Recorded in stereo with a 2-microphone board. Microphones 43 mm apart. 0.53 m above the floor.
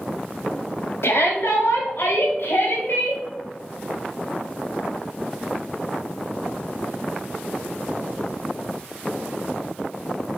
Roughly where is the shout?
Left.